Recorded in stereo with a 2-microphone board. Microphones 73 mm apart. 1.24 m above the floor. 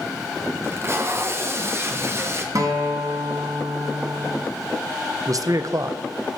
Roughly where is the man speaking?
Right.